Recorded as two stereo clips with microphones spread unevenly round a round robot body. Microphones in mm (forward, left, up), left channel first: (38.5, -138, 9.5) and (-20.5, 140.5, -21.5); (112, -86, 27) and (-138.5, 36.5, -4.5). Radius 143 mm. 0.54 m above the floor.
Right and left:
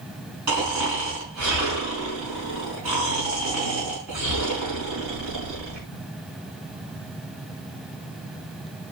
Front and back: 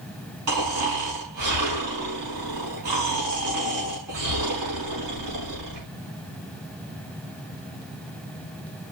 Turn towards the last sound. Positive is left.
turn(degrees=135)